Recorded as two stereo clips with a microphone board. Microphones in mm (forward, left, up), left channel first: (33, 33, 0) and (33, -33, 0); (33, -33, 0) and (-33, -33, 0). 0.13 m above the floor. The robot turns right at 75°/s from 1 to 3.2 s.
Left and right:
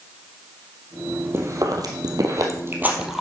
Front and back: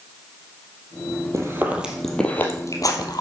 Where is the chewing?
140° right, 2.5 m; by 3.2 s straight ahead, 2.5 m.